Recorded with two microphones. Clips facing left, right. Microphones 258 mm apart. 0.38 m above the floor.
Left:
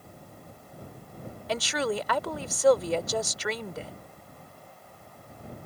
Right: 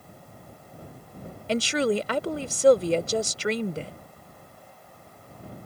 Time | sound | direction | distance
1.5 | a woman speaking | 30° right (ahead or behind) | ?